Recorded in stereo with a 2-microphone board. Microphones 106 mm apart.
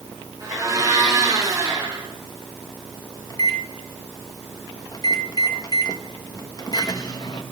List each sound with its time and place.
0.4 s a blender: 35° right (ahead or behind), 4.5 m
3.3 s a microwave: 40° left (ahead or behind), 1.0 m